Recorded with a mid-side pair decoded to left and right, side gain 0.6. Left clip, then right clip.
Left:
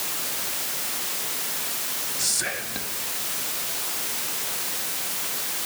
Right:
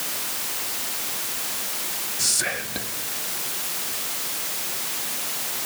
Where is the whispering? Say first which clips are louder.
Right 3 dB; 15° right, 1.7 m.